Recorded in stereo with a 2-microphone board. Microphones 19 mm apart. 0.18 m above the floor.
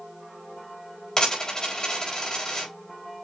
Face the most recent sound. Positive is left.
turn(degrees=35)  # may be behind; listen again after turning